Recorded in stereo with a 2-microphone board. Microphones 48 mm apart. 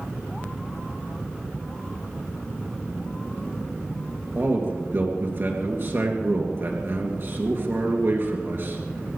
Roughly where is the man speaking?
Right.